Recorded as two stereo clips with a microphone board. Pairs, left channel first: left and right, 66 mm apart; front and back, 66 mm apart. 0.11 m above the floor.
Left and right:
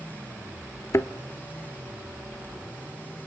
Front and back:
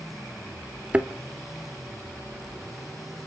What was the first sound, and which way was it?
A thud, 115° left.